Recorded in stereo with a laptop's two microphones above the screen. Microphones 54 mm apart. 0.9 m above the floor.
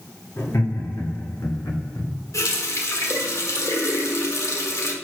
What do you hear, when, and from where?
0.4 s laughter: 60° left (ahead or behind), 2 m; by 2.1 s 75° left (ahead or behind), 2.5 m
2.3 s a running tap: 70° left (ahead or behind), 1.7 m